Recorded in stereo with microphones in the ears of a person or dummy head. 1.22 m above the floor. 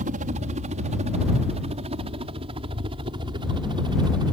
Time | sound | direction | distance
0.0 | a helicopter | 40° right (ahead or behind) | ?